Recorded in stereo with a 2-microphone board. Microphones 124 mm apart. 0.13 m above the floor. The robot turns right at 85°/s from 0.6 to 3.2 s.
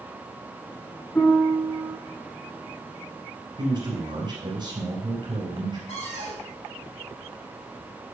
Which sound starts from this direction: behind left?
A piano, at 1.1 s.